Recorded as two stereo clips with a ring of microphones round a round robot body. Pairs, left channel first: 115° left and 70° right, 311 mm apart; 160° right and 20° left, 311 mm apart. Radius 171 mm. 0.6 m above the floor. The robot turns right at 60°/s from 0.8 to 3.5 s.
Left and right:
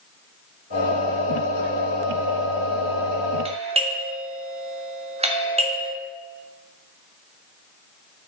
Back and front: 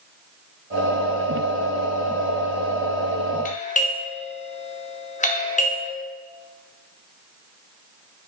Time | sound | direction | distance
3.5 | a doorbell | 120° right | 1.5 m